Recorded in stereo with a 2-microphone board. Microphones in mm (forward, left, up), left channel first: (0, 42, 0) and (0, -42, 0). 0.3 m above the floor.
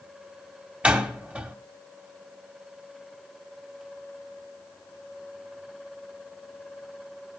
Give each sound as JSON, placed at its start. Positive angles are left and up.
{"t": 0.8, "sound": "a door slam", "side_deg": -15, "distance_m": 1.1}